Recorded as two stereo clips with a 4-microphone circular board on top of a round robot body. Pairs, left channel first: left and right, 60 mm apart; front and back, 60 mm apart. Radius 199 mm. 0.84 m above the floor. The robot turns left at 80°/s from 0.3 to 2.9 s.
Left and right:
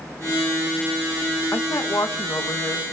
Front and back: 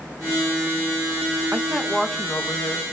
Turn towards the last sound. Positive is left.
turn(degrees=15)